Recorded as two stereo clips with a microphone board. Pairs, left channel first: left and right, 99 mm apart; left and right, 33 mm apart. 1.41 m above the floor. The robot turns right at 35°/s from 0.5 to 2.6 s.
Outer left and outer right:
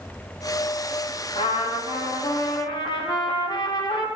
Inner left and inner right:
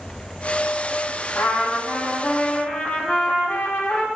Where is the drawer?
No drawer in this recording.